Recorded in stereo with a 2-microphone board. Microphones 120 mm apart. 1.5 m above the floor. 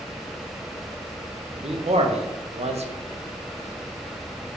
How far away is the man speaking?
About 0.5 m.